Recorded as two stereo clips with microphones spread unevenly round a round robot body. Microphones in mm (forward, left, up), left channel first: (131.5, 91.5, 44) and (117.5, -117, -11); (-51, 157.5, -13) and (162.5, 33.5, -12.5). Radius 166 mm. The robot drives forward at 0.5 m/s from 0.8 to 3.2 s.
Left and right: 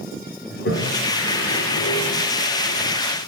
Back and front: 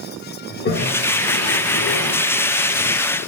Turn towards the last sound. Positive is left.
turn(degrees=170)